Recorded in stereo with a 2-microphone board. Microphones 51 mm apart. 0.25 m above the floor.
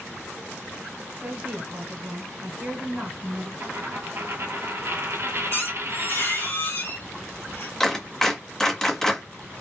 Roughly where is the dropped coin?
Right.